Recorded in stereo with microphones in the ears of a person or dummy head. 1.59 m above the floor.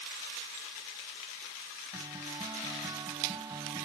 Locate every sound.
1.9 s a guitar: 15° right (ahead or behind)